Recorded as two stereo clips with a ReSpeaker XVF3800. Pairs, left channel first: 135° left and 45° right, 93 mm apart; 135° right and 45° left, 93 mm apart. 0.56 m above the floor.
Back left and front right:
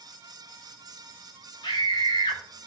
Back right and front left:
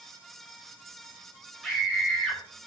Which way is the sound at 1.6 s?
135° left.